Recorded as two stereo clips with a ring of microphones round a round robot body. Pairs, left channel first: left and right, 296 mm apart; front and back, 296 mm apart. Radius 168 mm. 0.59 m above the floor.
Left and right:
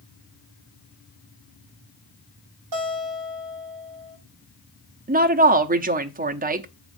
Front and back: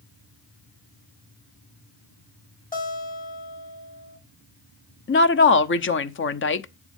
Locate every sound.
2.7 s a guitar: 60° right, 6.5 m
5.1 s a woman speaking: 35° right, 0.8 m